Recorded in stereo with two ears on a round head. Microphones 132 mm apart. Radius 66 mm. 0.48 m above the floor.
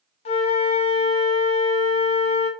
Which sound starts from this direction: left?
A flute, at 0.2 s.